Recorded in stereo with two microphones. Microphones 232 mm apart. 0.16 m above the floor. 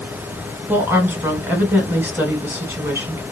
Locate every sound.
0.7 s a woman speaking: 10° right (ahead or behind), 1.1 m